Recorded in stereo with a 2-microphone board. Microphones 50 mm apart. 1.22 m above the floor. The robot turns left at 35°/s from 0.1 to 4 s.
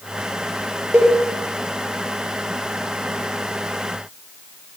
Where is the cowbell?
55° right (ahead or behind), 3 m; by 1.2 s 65° right (ahead or behind), 3 m.